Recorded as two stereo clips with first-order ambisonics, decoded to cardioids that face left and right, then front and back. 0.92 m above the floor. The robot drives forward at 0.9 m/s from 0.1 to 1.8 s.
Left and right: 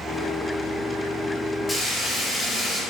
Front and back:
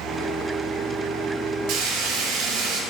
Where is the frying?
170° left, 1.4 m.